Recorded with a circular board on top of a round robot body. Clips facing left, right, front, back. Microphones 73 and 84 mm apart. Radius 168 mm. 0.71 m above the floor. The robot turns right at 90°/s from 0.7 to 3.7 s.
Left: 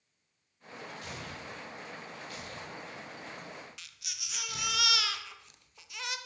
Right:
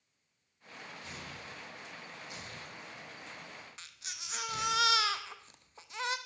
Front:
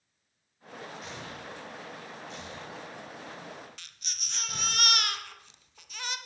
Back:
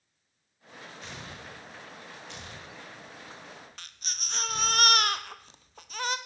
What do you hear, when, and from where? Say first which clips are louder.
1.0 s tearing paper: left 4 dB, front 2 dB; 85° left, 3 m; by 4.8 s 35° right, 3 m
3.8 s a baby crying: right 1 dB, back 5 dB; 140° right, 1.1 m